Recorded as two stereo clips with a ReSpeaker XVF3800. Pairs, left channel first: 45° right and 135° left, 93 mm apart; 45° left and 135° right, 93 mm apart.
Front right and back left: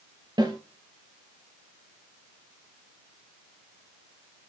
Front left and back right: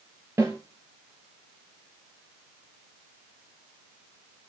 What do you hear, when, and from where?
0.4 s a snare drum: 165° left, 3 m